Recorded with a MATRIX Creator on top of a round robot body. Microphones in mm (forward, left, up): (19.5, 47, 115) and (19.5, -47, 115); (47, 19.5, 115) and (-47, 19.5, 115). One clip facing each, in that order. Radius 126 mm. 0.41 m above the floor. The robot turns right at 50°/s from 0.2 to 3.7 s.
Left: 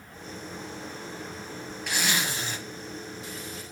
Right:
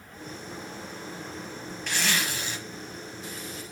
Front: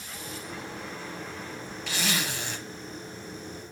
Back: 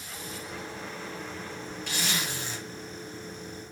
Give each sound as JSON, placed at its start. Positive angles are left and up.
{"t": 1.9, "sound": "a zipper", "azimuth_deg": 5, "distance_m": 4.5}